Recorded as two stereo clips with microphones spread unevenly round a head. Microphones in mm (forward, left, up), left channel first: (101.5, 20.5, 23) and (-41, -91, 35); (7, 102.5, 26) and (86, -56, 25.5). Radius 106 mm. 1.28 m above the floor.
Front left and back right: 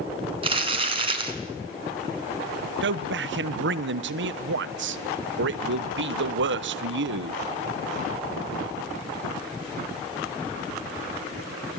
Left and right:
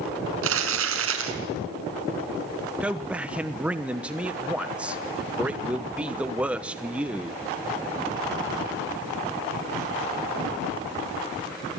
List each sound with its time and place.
0.4 s crumpling: 80° right, 4.5 m
2.8 s a man speaking: 145° right, 1.1 m